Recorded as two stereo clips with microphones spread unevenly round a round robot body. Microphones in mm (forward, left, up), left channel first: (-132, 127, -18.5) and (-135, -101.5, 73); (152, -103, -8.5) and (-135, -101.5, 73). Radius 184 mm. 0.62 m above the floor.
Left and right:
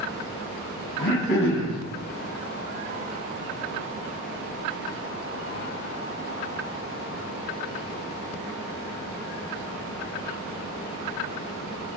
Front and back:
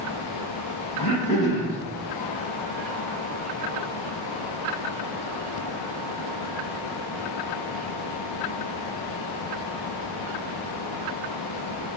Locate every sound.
1.0 s throat clearing: 45° left, 5.5 m